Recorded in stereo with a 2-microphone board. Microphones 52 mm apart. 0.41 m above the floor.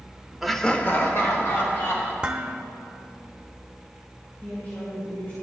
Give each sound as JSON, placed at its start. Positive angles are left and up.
{"t": 0.4, "sound": "laughter", "side_deg": -5, "distance_m": 0.8}
{"t": 2.2, "sound": "dishes clattering", "side_deg": -20, "distance_m": 0.8}
{"t": 4.4, "sound": "a woman speaking", "side_deg": 35, "distance_m": 2.5}